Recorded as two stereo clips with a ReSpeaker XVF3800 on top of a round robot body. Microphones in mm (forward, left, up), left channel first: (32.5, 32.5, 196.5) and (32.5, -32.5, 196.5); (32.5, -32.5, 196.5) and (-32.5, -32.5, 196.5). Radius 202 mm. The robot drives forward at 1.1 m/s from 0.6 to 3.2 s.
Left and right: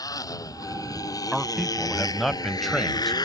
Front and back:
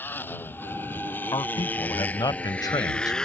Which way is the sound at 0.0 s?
60° left.